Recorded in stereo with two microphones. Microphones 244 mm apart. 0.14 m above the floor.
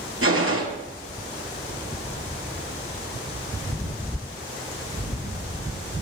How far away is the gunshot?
About 1.8 m.